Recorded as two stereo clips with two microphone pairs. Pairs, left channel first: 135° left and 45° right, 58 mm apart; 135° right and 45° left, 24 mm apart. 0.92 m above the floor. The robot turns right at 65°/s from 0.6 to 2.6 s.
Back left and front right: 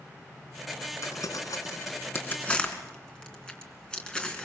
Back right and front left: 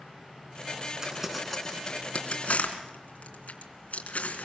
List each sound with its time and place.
1.0 s crumpling: 110° left, 3 m; by 4.5 s 150° right, 3 m